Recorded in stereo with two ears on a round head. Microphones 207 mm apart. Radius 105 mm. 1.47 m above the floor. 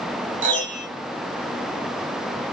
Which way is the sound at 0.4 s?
35° right (ahead or behind).